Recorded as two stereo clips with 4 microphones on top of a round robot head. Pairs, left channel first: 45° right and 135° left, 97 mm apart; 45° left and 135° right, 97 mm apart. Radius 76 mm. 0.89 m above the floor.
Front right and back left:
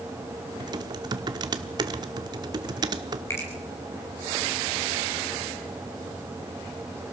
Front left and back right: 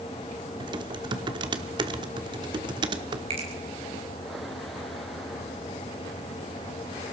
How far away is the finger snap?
About 6 m.